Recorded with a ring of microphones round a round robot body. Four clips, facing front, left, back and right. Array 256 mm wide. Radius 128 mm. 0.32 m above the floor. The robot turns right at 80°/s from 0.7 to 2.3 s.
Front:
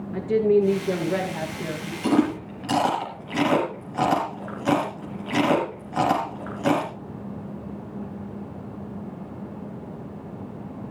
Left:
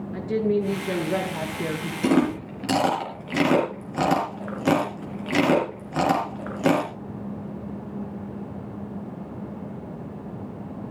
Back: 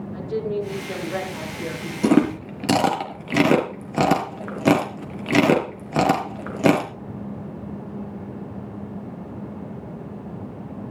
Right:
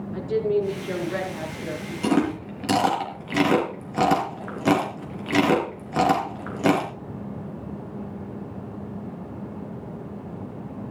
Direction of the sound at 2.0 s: 160° left.